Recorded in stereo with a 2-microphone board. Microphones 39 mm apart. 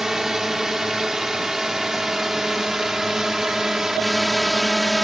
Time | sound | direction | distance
0.0 | a drone | 10° right (ahead or behind) | ?